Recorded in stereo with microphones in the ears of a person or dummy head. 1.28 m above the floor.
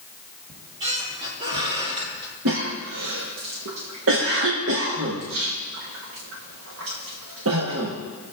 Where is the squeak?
20° right (ahead or behind), 2.5 m.